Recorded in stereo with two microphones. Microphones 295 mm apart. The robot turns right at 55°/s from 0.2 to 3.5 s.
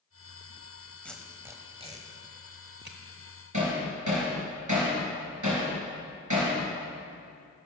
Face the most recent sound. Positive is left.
turn(degrees=-75)  # may be behind; listen again after turning